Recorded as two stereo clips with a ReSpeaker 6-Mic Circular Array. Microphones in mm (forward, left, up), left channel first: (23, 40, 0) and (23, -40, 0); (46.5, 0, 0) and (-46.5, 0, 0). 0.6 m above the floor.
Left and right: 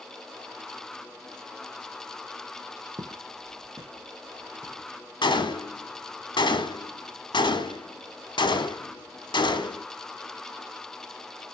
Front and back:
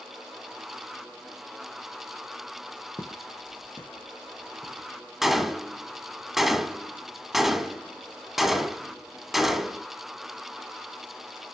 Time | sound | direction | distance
3.0 | footsteps | 55° right | 1.4 m
5.2 | a gunshot | 95° left | 1.3 m